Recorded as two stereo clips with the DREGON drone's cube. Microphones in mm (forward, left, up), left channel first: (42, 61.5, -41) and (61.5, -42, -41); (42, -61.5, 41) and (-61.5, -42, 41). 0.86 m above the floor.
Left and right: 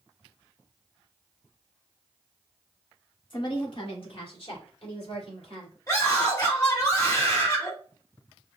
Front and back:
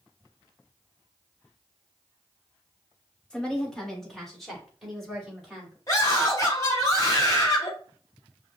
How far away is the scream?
About 2.5 m.